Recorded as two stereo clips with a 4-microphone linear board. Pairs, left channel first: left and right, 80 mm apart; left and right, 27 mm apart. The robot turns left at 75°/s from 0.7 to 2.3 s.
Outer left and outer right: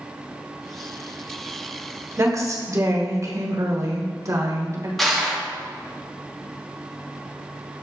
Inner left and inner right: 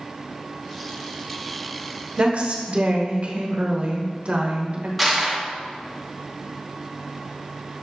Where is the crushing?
Centre (ahead or behind), 1.2 m.